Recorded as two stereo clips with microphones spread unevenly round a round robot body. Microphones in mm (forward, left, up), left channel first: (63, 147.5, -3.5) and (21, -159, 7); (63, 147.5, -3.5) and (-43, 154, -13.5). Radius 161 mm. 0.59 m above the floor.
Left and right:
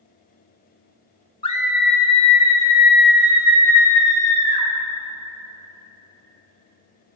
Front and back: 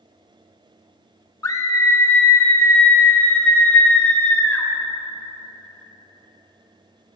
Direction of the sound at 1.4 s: 30° left.